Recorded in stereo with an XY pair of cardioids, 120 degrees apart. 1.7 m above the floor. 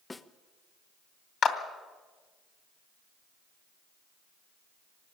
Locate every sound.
0.1 s a snare drum: 20° left, 0.9 m
1.4 s a clap: 45° left, 2.5 m